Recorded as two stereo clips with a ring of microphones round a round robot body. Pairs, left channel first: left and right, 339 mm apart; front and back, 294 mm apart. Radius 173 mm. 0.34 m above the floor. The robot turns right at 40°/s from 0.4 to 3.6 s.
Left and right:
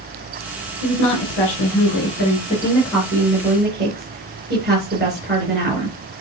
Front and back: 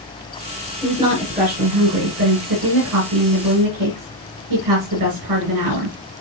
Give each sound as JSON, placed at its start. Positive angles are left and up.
{"t": 0.8, "sound": "a woman speaking", "azimuth_deg": 95, "distance_m": 5.0}